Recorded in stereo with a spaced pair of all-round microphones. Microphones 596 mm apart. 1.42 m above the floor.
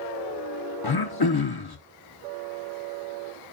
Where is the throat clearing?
40° left (ahead or behind), 0.8 m.